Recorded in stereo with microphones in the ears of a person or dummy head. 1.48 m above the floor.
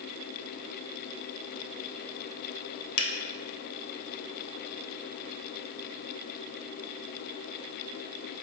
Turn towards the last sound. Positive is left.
turn(degrees=80)